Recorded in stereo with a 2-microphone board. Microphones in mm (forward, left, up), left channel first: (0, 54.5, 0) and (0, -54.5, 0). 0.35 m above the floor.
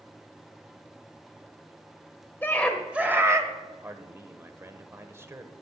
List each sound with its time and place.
2.4 s a scream: 20° left (ahead or behind), 1.1 m; by 3.5 s 35° right (ahead or behind), 1.3 m
3.8 s a man speaking: 25° right (ahead or behind), 1.0 m